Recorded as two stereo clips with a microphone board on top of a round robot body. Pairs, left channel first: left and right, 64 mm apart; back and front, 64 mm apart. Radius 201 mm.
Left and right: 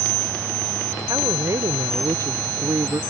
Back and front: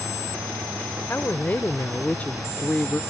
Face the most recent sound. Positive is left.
turn(degrees=-110)